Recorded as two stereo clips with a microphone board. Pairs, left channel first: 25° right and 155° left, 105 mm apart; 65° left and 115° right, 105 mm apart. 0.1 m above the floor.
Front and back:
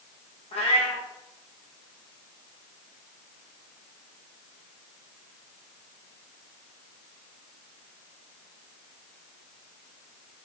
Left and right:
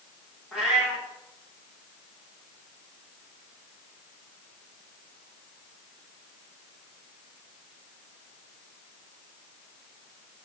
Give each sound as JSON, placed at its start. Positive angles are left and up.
{"t": 0.5, "sound": "a cat meowing", "azimuth_deg": -25, "distance_m": 7.5}